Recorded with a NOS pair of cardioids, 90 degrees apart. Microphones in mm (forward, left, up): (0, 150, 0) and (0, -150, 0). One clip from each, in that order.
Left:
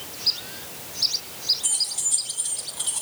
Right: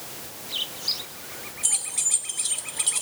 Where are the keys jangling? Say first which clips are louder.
Left 2 dB; 25° right, 2.5 m; by 3.0 s 45° right, 1.9 m.